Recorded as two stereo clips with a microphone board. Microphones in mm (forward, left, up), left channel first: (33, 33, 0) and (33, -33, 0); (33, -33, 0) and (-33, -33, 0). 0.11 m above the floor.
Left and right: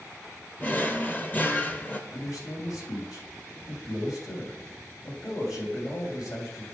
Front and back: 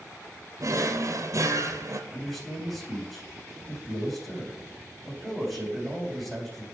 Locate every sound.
0.6 s a drawer: 150° left, 0.9 m
2.1 s a man speaking: 90° left, 4.5 m